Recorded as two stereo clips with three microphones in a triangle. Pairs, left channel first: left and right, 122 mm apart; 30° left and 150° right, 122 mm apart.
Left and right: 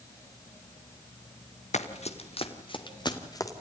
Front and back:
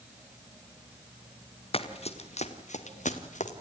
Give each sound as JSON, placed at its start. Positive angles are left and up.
{"t": 1.7, "sound": "running footsteps", "azimuth_deg": 70, "distance_m": 2.0}